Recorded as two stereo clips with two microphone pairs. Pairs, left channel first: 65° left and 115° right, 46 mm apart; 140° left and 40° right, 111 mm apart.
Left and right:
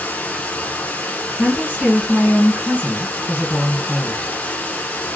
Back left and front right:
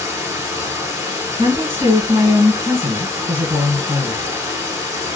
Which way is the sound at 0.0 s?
20° left.